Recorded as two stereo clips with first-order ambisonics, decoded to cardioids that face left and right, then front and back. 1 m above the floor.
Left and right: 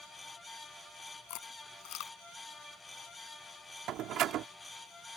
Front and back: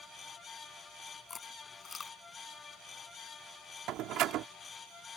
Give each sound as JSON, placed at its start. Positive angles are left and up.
{"t": 1.3, "sound": "chewing", "azimuth_deg": 70}
{"t": 3.9, "sound": "a door slam", "azimuth_deg": -135}